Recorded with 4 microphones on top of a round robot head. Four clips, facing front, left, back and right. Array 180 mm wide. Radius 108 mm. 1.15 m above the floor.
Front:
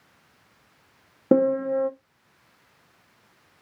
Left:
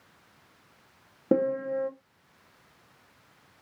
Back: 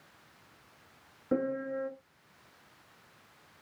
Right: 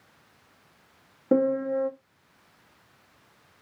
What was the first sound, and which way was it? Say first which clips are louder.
A piano: right 3 dB, front 12 dB; 15° left.